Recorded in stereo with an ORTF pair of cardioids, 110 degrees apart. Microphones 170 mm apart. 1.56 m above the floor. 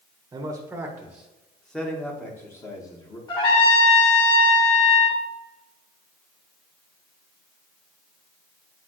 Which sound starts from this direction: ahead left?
A trumpet, at 3.3 s.